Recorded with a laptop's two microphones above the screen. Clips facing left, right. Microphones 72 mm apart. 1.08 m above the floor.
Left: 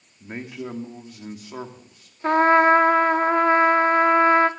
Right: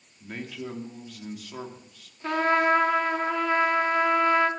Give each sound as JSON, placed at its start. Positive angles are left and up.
{"t": 0.2, "sound": "a man speaking", "side_deg": 25, "distance_m": 2.5}
{"t": 2.2, "sound": "a trumpet", "side_deg": 40, "distance_m": 1.0}